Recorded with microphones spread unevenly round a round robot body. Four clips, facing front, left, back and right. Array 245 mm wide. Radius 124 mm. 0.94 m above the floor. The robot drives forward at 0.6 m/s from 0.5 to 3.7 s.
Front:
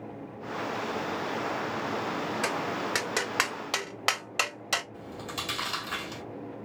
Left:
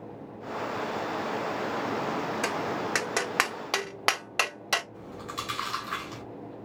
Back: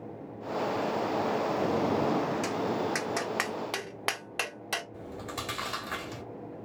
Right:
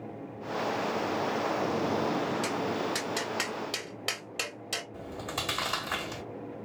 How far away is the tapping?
About 1.8 m.